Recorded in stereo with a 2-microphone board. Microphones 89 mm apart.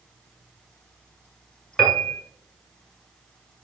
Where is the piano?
15° left (ahead or behind), 1.7 m.